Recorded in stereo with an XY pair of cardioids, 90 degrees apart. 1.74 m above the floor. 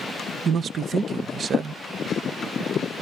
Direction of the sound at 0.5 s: 55° right.